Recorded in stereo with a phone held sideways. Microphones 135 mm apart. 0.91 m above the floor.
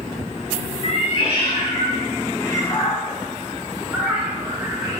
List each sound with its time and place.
0.8 s a cat meowing: 55° left (ahead or behind), 1.4 m; by 5.0 s 25° right (ahead or behind), 1.3 m